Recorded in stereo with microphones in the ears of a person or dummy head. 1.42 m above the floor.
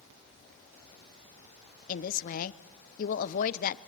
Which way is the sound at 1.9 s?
45° left (ahead or behind).